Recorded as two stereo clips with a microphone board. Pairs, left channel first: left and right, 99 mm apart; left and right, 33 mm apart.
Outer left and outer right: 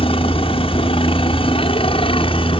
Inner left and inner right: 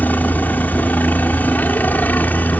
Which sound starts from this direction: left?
A helicopter, at 0.0 s.